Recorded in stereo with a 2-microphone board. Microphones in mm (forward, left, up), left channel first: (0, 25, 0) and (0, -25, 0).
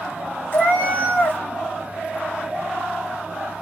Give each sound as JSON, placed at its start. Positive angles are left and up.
{"t": 0.5, "sound": "a cat meowing", "side_deg": 40, "distance_m": 0.8}